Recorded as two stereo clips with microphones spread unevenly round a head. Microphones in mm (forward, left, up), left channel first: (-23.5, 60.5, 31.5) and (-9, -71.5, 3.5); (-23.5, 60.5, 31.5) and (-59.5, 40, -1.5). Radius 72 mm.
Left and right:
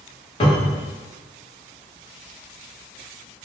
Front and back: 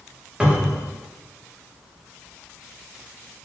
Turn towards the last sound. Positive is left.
turn(degrees=145)